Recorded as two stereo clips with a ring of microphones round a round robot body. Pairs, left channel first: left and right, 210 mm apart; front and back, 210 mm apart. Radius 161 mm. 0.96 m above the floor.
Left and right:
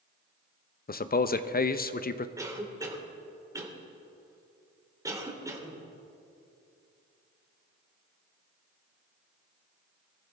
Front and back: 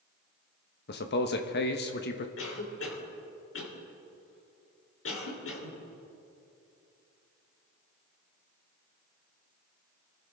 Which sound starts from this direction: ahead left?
A man speaking, at 0.9 s.